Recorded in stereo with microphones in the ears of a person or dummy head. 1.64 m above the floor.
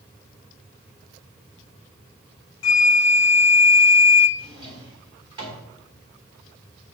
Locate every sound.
2.6 s a flute: 70° left (ahead or behind), 0.5 m
4.4 s a drawer: 25° right (ahead or behind), 3 m